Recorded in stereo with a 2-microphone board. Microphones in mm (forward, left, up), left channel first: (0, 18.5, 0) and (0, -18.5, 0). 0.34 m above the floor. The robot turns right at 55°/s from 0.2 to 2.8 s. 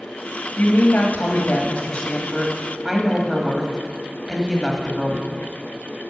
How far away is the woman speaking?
About 1.5 m.